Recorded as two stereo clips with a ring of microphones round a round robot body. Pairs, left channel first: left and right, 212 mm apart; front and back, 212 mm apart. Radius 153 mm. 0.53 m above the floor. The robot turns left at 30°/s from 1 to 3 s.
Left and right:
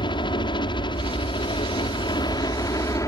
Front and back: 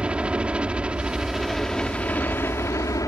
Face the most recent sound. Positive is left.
turn(degrees=45)